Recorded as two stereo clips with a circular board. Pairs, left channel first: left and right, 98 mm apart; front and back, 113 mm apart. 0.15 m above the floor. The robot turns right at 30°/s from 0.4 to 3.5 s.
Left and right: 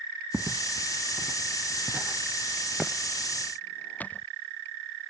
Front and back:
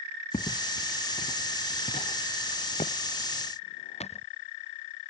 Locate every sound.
0.3 s footsteps: 25° right; by 4.3 s 15° left